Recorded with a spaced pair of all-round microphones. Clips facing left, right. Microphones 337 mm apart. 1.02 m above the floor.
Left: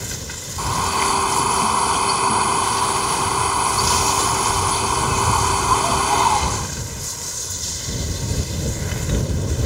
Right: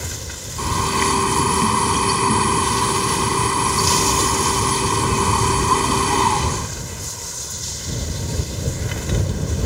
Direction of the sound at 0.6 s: 30° right (ahead or behind).